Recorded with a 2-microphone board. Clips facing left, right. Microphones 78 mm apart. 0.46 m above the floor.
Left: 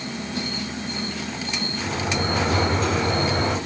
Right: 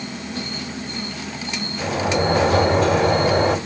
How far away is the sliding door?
About 1.8 m.